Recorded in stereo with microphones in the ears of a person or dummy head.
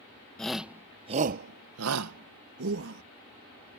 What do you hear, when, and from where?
0.4 s a shout: 5° left (ahead or behind); by 3.0 s 65° right (ahead or behind)